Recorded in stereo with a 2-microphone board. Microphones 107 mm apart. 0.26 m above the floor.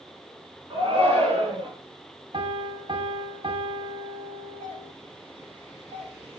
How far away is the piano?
About 1.4 m.